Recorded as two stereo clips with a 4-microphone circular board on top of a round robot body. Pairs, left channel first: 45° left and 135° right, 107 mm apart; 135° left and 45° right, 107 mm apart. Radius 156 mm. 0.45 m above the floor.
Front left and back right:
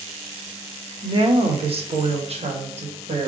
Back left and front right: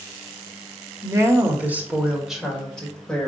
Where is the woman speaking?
105° right, 1.8 m; by 3.3 s 145° right, 2.5 m.